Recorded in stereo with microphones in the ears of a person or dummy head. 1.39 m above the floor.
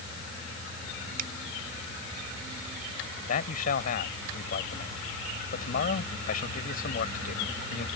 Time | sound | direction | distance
1.2 | a finger snap | 50° right (ahead or behind) | ?
3.3 | a man speaking | 50° left (ahead or behind) | ?